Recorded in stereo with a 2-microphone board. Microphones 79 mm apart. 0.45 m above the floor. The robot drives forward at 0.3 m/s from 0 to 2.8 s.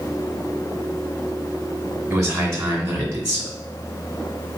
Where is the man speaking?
40° right (ahead or behind), 1.9 m.